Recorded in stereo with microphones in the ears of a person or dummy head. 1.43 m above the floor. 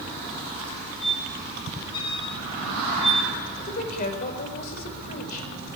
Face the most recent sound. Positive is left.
turn(degrees=50)  # may be behind; listen again after turning